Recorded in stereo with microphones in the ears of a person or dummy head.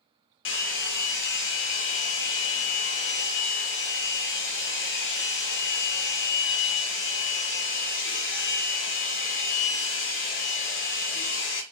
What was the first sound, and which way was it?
A hair dryer, 60° left (ahead or behind).